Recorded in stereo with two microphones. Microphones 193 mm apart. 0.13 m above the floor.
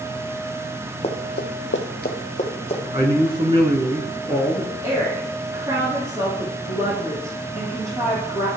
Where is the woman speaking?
20° right (ahead or behind), 4 m.